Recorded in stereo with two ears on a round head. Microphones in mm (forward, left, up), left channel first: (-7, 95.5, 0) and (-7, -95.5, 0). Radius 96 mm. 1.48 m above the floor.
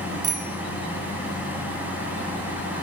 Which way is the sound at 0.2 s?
40° right (ahead or behind).